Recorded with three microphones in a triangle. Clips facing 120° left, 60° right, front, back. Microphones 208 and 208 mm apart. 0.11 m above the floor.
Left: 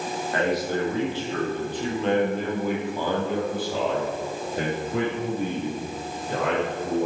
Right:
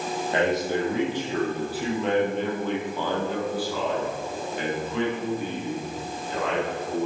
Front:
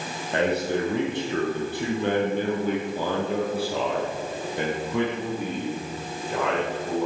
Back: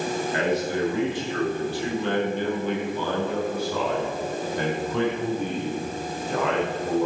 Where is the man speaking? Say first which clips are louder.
Right 1 dB, front 3 dB; 5° left, 4.5 m; by 7.1 s 95° left, 5.5 m.